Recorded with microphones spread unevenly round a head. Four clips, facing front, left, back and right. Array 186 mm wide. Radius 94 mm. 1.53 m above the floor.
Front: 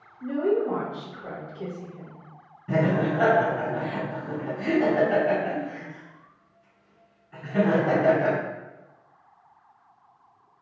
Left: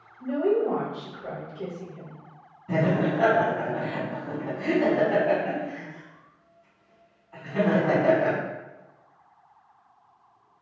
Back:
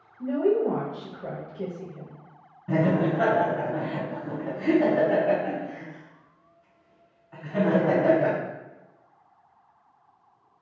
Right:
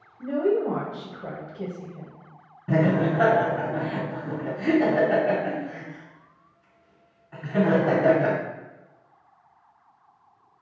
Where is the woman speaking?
145° right, 0.6 m.